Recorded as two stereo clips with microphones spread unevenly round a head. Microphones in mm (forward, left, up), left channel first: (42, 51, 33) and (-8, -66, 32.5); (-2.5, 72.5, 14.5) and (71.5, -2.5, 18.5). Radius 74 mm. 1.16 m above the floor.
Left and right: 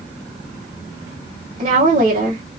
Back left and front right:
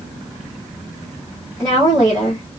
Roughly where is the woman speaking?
Behind right.